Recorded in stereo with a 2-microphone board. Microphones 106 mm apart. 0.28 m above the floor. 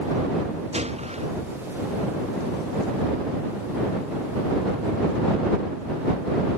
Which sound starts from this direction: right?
A gunshot, at 0.7 s.